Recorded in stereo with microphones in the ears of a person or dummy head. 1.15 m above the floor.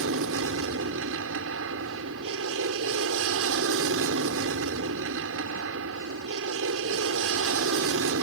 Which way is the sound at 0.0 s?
70° right (ahead or behind).